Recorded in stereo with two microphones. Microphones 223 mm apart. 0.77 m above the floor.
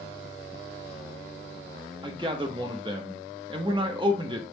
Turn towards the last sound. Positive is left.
turn(degrees=-20)  # may be behind; listen again after turning